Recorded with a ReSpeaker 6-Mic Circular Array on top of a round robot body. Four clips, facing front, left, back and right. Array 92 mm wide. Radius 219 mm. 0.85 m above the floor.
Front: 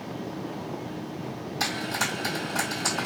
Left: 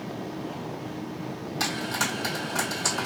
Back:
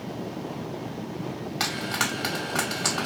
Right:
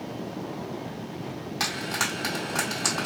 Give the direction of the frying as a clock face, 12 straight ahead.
6 o'clock.